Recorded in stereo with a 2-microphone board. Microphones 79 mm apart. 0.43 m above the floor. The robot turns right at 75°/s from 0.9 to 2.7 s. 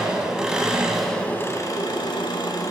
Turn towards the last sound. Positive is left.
turn(degrees=125)